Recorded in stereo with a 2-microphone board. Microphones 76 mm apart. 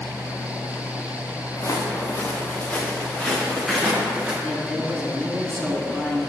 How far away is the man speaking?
About 1.2 m.